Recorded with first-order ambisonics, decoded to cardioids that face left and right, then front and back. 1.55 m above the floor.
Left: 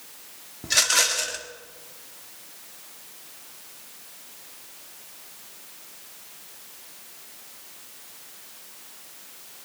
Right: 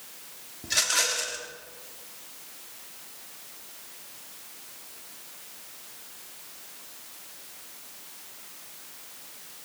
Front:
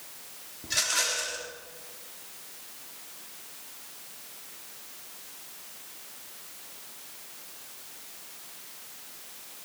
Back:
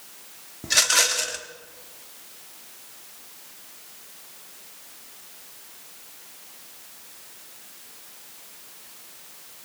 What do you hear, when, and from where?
0.6 s a rattle: 150° left, 1.2 m